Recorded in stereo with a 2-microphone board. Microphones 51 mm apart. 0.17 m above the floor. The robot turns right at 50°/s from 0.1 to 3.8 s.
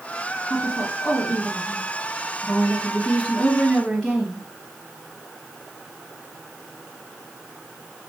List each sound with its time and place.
0.5 s a woman speaking: straight ahead, 1.5 m; by 4.4 s 165° left, 1.5 m